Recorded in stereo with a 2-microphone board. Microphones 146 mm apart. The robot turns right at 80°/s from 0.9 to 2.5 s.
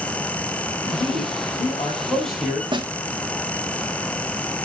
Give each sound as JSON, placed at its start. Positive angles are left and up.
{"t": 0.8, "sound": "a man speaking", "azimuth_deg": 65, "distance_m": 3.5}
{"t": 2.7, "sound": "a snare drum", "side_deg": -30, "distance_m": 1.1}